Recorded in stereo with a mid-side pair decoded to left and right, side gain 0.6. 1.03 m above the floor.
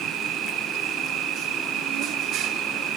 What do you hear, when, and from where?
0.0 s an insect: 55° right